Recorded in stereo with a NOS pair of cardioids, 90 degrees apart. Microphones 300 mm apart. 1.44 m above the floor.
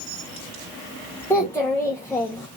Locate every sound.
1.3 s a child speaking: 10° left, 0.9 m